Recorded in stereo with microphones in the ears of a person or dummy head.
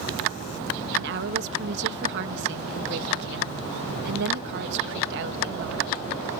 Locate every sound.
1.0 s a woman speaking: 60° right (ahead or behind)